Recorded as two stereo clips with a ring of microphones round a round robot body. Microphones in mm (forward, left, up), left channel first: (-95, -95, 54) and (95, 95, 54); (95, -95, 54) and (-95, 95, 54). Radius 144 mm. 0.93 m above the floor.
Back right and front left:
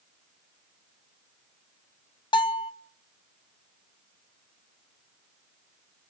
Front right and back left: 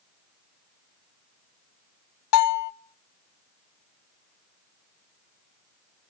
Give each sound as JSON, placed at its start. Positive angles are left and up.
{"t": 2.3, "sound": "a bell", "azimuth_deg": -60, "distance_m": 1.6}